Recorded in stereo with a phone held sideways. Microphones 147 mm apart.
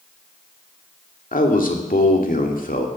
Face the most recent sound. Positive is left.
turn(degrees=70)  # may be behind; listen again after turning